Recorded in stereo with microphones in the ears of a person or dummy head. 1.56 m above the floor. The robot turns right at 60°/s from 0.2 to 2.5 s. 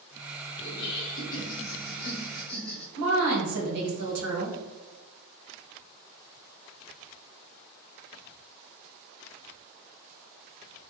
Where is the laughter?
55° left, 1.1 m; by 2.9 s 170° left, 1.1 m.